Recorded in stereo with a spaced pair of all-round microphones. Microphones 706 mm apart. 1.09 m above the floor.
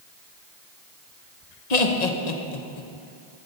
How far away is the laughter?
About 1.0 m.